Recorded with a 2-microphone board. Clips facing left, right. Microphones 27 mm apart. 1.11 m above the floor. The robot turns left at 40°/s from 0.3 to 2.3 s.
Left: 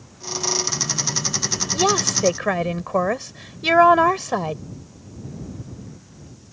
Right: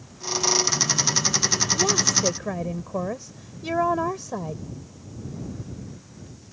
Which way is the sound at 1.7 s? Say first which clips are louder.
Left 3 dB; 55° left (ahead or behind).